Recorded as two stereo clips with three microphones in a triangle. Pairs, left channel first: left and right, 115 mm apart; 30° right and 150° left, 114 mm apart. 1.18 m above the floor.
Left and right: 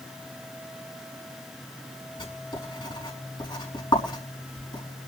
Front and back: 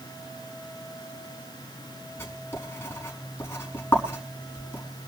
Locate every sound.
2.2 s writing: 40° left, 5.5 m